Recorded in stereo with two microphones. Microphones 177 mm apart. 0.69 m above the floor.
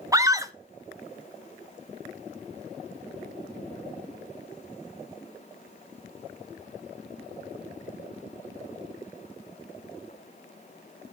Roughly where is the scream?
Centre.